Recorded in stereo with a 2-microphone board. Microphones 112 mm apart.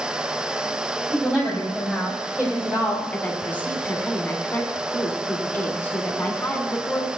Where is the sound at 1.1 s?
10° right (ahead or behind), 5 m; by 3.0 s 20° right (ahead or behind), 4.5 m.